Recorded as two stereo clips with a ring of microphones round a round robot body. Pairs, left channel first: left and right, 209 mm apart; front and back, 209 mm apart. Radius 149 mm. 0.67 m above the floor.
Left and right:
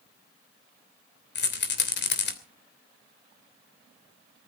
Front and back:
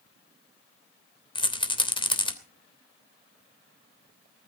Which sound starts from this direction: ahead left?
A rattle, at 1.4 s.